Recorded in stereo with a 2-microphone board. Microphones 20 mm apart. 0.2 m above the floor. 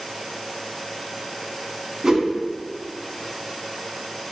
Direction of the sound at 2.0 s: 40° right (ahead or behind).